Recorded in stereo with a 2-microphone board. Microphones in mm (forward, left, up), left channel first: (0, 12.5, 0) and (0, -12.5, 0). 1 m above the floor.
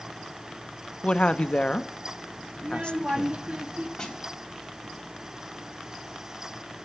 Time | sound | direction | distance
1.0 | a woman speaking | 40° left (ahead or behind) | 0.6 m
2.6 | a child speaking | 50° right (ahead or behind) | 0.9 m
4.0 | a snare drum | 20° left (ahead or behind) | 3.5 m